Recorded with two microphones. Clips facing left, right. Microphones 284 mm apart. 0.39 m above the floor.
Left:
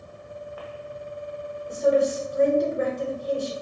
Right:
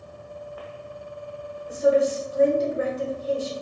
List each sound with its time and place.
1.7 s a woman speaking: 5° right (ahead or behind), 0.9 m